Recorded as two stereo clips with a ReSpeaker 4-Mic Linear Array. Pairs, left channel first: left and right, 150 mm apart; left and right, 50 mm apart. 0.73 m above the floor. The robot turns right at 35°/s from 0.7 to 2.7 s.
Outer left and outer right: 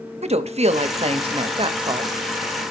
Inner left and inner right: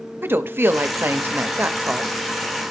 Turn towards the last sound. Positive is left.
turn(degrees=-20)